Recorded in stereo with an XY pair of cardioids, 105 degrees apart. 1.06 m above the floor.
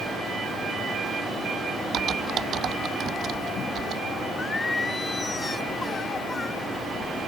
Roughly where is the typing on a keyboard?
Ahead right.